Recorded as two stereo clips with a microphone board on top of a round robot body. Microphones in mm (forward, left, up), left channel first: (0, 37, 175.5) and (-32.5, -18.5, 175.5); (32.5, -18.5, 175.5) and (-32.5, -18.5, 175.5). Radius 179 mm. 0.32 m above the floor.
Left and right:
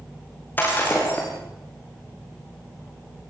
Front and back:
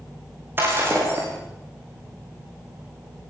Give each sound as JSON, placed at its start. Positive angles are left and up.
{"t": 0.6, "sound": "breaking glass", "azimuth_deg": 125, "distance_m": 6.5}